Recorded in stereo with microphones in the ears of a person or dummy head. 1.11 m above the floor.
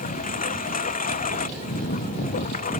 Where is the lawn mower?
45° left (ahead or behind).